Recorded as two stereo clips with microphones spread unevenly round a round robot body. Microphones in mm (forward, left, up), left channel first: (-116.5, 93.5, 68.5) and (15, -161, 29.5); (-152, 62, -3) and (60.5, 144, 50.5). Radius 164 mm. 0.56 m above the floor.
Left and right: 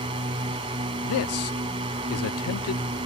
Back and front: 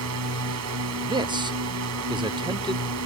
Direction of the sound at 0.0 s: 10° left.